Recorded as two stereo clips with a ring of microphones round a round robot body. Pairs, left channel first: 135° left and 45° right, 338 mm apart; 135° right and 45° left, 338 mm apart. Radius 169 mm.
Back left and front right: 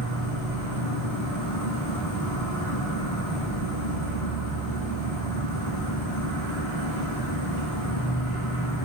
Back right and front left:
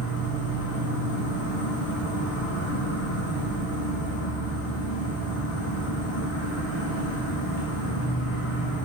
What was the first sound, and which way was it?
An insect, 170° left.